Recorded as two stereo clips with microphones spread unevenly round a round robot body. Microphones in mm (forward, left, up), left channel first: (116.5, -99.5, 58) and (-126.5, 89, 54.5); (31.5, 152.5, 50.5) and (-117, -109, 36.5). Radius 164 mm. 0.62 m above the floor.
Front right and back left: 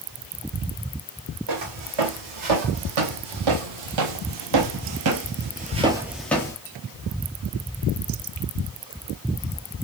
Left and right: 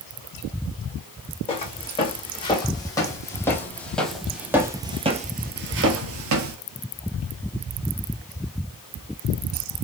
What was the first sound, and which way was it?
Footsteps, 130° left.